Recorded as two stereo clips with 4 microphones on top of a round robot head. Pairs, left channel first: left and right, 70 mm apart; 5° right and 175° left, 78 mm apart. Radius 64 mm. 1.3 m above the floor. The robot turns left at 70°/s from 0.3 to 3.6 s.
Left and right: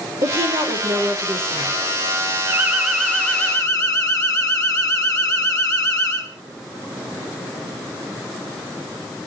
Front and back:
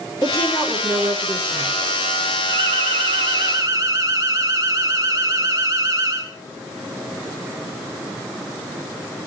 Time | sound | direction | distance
0.2 | a woman speaking | 65° right | 5 m
2.5 | an alarm | 150° right | 4.5 m